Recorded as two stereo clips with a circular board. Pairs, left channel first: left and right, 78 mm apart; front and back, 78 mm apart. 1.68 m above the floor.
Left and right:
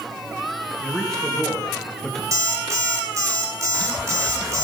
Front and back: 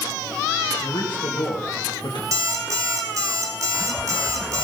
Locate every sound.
0.8 s a man speaking: 5° left, 2.5 m
2.3 s an alarm clock: 135° right, 3 m